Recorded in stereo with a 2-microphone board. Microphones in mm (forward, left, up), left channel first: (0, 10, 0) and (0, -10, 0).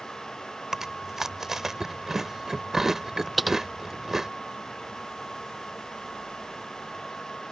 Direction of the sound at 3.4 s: 5° right (ahead or behind).